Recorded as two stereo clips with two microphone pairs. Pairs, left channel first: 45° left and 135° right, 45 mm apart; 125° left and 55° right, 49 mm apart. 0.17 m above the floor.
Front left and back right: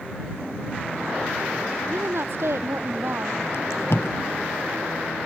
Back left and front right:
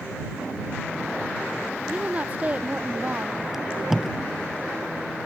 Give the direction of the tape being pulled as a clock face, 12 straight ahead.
11 o'clock.